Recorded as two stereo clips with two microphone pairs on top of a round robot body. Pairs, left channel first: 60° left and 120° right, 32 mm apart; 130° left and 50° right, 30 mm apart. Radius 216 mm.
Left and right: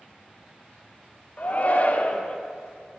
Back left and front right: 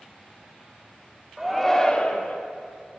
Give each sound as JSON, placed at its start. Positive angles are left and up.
{"t": 1.4, "sound": "a shout", "azimuth_deg": 35, "distance_m": 1.3}